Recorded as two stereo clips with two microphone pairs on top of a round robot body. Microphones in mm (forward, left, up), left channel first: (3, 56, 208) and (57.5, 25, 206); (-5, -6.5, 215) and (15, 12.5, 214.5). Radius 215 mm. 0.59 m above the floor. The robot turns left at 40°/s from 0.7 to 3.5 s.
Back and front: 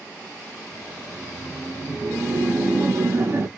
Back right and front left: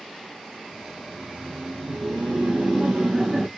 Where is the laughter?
80° left, 1.2 m; by 3.5 s 20° right, 1.2 m.